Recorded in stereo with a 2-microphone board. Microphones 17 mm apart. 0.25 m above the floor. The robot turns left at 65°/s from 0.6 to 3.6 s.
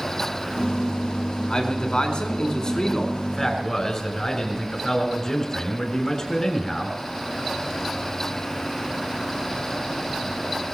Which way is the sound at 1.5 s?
125° left.